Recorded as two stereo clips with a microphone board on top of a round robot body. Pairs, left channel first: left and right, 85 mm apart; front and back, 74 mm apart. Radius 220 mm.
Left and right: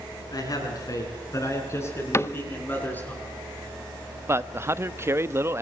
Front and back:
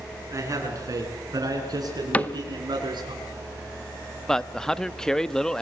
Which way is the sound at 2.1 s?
55° left.